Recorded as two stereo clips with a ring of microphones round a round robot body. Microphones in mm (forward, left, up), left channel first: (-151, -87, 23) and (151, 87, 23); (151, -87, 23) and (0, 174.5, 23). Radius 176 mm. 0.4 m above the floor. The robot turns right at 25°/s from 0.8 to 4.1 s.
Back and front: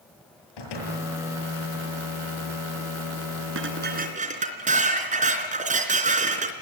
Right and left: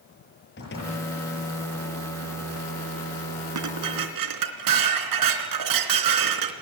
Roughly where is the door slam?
Behind right.